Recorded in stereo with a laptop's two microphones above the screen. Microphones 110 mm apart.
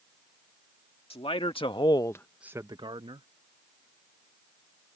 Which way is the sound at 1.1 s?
65° left (ahead or behind).